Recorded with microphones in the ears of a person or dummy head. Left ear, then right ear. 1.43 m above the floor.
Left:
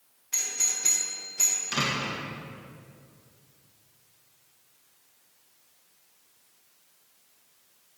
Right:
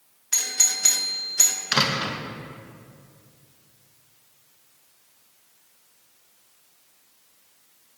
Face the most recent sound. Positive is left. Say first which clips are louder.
# right 6 dB
turn(degrees=-60)  # may be behind; listen again after turning